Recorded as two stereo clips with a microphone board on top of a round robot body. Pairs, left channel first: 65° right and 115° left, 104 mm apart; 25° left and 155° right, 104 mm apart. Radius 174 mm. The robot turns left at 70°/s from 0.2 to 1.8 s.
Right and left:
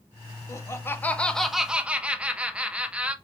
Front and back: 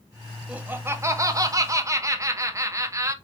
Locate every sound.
0.5 s laughter: 90° right, 0.7 m; by 3.1 s straight behind, 0.7 m